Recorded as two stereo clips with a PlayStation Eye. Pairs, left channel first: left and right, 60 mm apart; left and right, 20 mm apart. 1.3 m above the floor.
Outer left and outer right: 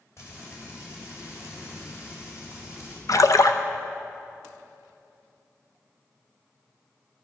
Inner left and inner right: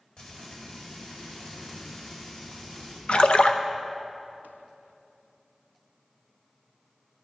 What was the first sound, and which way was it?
Frying, 50° left (ahead or behind).